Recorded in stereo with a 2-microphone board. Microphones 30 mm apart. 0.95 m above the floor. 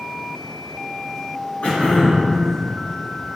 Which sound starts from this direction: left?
Throat clearing, at 1.6 s.